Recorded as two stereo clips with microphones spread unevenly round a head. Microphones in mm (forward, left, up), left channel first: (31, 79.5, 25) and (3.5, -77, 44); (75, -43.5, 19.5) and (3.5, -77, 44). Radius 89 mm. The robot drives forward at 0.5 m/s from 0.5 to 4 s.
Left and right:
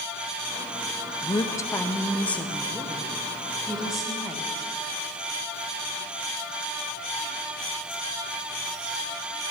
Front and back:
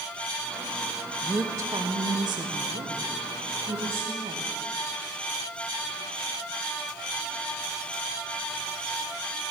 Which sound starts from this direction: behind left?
A woman speaking, at 1.2 s.